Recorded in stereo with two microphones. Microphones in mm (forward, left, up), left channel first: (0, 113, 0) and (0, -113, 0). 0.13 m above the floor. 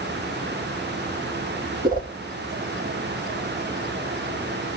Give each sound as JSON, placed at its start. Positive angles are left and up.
{"t": 1.8, "sound": "a whoosh", "side_deg": -40, "distance_m": 3.0}